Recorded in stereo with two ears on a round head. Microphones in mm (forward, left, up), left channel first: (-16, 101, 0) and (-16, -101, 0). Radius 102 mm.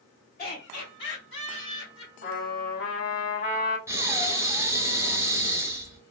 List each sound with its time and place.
0.4 s laughter: 45° left (ahead or behind), 1.9 m; by 2.1 s 65° left (ahead or behind), 2.5 m
2.2 s a trumpet: 40° left (ahead or behind), 1.9 m
3.9 s breathing: 10° right (ahead or behind), 0.6 m